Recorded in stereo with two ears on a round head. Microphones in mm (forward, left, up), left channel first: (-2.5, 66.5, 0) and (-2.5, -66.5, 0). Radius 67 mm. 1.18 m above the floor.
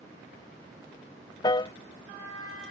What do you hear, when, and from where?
1.4 s a piano: 25° left (ahead or behind)